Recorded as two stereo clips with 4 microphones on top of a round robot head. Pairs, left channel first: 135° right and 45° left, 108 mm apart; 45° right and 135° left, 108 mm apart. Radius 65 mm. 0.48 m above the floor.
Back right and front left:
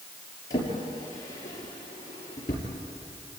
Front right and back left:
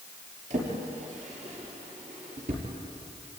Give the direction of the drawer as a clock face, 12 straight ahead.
7 o'clock.